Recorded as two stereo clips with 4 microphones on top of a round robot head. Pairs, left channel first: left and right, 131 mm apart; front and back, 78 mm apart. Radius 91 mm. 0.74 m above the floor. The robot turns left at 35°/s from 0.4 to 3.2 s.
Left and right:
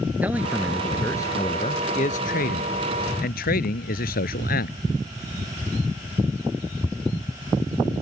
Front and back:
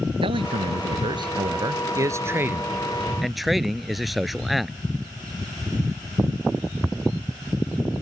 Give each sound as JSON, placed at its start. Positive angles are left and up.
{"t": 0.2, "sound": "a man speaking", "azimuth_deg": -170}